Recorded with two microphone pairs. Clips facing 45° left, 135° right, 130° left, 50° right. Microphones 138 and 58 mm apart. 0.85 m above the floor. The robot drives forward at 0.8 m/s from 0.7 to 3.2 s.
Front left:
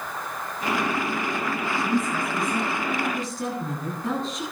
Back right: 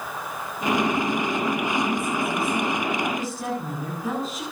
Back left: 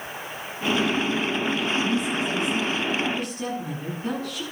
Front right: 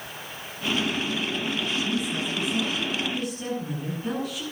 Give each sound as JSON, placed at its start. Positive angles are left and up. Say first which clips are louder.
{"t": 1.8, "sound": "a woman speaking", "louder": "even, back left 3 dB", "azimuth_deg": 135, "distance_m": 9.5}